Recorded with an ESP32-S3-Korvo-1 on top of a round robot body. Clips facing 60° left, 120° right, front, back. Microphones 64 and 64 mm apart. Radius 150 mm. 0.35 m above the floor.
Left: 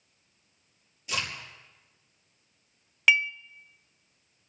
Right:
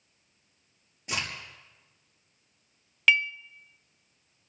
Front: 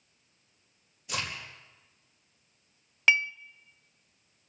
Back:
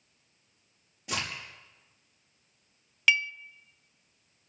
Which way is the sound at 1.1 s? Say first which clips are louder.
Left 1 dB, back 1 dB; 165° right.